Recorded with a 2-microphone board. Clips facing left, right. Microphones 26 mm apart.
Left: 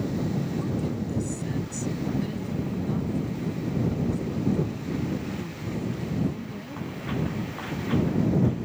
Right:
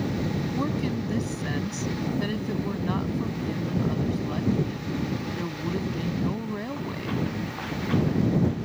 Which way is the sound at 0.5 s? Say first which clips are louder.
Right 1 dB; 45° right (ahead or behind).